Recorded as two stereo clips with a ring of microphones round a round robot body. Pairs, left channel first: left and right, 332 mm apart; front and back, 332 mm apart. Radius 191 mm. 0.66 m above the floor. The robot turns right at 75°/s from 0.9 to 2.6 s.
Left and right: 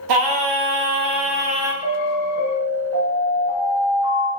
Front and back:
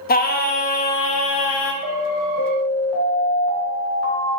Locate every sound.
0.1 s singing: 65° right, 0.5 m; by 1.7 s 5° right, 0.5 m
1.8 s an alarm: 110° left, 2 m; by 4.3 s 165° left, 2 m